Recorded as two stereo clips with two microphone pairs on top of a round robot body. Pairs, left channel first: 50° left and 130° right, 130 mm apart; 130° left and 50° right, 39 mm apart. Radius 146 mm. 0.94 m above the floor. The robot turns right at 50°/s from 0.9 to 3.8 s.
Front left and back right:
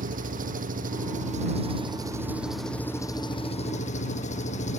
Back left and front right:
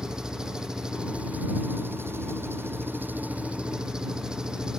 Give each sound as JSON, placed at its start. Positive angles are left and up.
{"t": 0.0, "sound": "an engine running", "azimuth_deg": -125}